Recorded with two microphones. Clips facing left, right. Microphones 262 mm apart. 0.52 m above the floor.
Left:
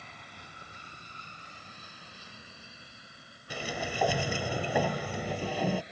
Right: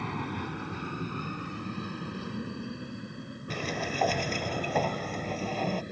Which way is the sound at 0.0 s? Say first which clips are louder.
Right 19 dB; 70° right (ahead or behind).